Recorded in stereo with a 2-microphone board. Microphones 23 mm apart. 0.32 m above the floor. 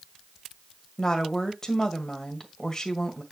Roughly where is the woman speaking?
Left.